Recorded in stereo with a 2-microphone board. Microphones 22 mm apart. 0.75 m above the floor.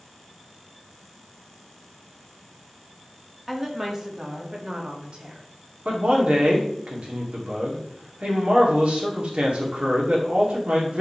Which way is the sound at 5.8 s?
60° right (ahead or behind).